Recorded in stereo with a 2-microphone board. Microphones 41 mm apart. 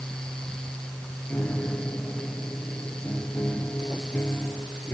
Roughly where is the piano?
Left.